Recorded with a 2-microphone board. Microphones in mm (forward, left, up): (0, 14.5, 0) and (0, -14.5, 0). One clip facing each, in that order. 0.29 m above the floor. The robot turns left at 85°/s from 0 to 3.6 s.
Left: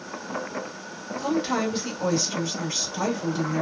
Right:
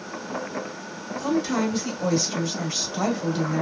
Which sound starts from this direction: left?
A woman speaking, at 1.2 s.